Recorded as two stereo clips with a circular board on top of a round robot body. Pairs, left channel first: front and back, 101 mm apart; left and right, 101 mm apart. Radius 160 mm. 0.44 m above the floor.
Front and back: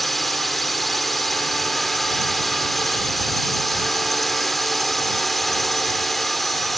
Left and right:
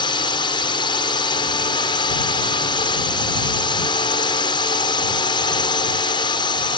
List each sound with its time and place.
0.0 s a drone: 90° left